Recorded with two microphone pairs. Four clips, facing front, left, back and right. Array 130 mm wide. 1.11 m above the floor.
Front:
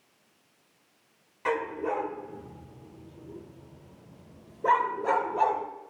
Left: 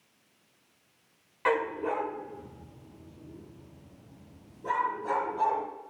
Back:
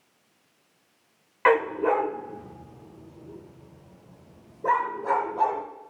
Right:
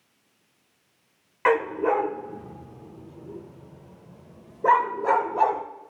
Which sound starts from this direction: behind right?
A dog barking, at 1.4 s.